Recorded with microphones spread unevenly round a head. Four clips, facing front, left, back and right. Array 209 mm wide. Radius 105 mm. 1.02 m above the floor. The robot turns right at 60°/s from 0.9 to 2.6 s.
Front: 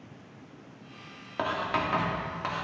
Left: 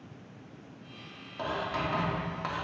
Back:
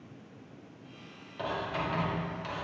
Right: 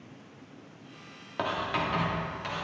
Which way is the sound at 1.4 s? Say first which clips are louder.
Right 2 dB, front 4 dB; 35° right.